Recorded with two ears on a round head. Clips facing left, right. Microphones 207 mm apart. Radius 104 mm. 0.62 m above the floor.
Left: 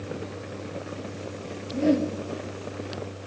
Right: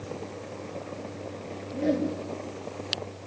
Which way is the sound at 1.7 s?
Centre (ahead or behind).